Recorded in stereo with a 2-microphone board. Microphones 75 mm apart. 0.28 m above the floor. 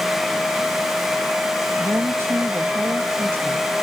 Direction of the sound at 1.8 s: 35° right (ahead or behind).